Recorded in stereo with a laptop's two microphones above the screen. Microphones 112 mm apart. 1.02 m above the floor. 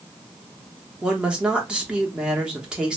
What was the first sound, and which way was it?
A woman speaking, 10° right (ahead or behind).